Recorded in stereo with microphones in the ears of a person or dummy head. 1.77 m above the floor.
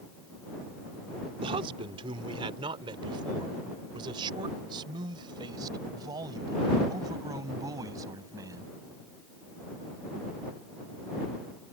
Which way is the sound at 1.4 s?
30° right (ahead or behind).